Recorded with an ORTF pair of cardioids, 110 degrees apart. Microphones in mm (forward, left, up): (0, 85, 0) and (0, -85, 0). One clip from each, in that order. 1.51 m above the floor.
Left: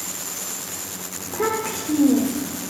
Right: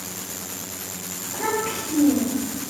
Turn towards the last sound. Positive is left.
turn(degrees=50)